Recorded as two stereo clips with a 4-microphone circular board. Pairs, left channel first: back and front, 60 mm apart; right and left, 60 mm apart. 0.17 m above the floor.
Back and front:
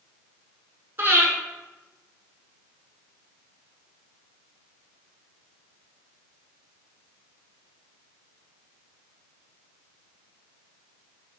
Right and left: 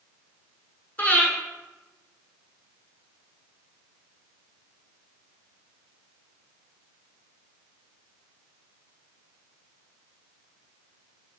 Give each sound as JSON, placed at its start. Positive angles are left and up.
{"t": 1.0, "sound": "breathing", "azimuth_deg": -40, "distance_m": 1.1}